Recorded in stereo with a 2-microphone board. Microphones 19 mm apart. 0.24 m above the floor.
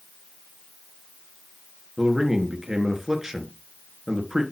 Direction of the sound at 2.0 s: 20° right (ahead or behind).